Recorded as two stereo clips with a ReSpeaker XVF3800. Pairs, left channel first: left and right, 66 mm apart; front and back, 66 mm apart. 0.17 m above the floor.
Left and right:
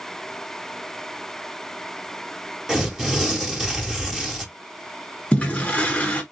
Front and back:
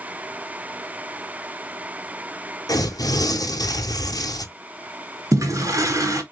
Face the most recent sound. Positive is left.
turn(degrees=160)